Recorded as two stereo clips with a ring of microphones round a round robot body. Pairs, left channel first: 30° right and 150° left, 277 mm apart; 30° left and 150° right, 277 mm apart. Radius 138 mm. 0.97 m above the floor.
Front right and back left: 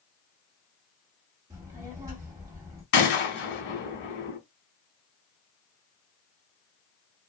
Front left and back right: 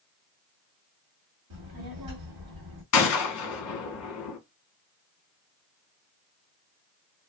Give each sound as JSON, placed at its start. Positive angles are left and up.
{"t": 1.5, "sound": "a child speaking", "azimuth_deg": -130, "distance_m": 1.2}
{"t": 2.9, "sound": "a gunshot", "azimuth_deg": 15, "distance_m": 0.9}